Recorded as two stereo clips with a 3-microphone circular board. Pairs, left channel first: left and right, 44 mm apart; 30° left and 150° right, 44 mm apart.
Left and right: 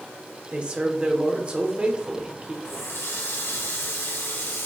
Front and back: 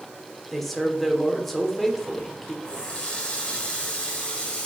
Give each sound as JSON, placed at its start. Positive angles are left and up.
{"t": 0.5, "sound": "a man speaking", "azimuth_deg": -55, "distance_m": 1.2}
{"t": 2.6, "sound": "a running tap", "azimuth_deg": 95, "distance_m": 1.6}